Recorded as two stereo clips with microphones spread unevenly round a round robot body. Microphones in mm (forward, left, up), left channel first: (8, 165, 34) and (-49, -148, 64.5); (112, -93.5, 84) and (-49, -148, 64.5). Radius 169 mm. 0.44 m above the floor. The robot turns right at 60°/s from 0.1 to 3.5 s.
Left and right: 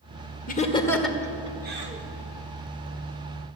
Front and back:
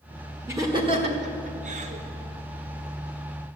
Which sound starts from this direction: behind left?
Laughter, at 0.5 s.